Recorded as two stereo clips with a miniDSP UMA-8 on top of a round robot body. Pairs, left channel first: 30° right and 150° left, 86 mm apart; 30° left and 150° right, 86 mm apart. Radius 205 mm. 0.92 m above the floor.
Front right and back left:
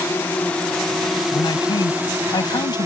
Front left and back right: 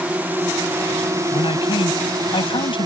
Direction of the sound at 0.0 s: 85° right.